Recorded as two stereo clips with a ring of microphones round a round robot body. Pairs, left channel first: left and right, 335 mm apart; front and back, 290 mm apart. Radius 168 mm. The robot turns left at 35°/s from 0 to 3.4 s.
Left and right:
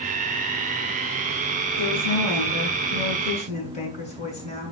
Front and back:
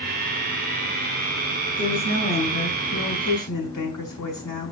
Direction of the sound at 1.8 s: 75° left.